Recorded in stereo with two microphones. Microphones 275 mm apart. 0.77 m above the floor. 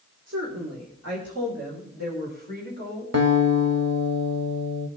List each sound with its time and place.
0.3 s a woman speaking: 75° right (ahead or behind), 2.5 m; by 3.0 s 45° right (ahead or behind), 4.5 m
3.1 s a guitar: 80° right, 1.4 m